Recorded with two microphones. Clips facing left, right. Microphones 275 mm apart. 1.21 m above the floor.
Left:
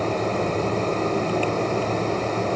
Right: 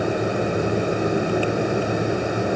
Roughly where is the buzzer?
I don't hear a buzzer.